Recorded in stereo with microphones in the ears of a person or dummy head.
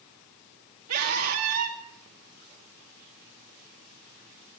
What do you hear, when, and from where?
0.9 s a scream: 80° right, 3 m